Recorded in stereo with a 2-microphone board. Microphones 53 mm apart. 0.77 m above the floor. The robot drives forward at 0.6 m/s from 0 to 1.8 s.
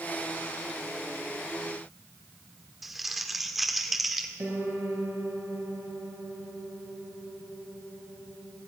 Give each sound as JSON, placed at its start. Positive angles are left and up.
{"t": 2.8, "sound": "crumpling", "side_deg": 0, "distance_m": 1.8}
{"t": 4.4, "sound": "a piano", "side_deg": -50, "distance_m": 4.5}